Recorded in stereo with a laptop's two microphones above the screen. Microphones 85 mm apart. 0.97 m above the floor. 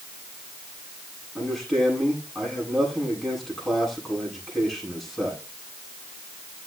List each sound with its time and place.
1.4 s a man speaking: centre (ahead or behind), 9.5 m